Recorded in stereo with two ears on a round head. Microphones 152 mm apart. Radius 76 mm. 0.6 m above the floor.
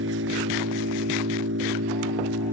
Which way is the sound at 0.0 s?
85° right.